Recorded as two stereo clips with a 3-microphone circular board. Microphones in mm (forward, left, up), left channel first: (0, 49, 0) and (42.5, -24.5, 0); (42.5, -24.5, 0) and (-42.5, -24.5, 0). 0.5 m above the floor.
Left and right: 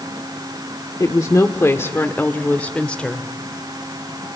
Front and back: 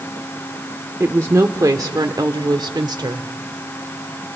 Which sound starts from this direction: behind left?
A woman speaking, at 1.0 s.